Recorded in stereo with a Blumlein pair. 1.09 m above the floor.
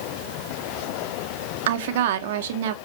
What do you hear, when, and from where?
1.7 s a woman speaking: 55° right, 0.6 m